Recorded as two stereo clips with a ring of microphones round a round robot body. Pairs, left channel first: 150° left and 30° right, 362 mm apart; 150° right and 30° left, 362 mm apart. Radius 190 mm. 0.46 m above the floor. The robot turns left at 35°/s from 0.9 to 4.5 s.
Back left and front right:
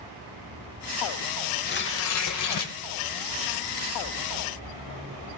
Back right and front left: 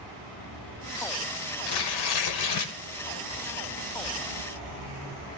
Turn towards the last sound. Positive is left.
turn(degrees=115)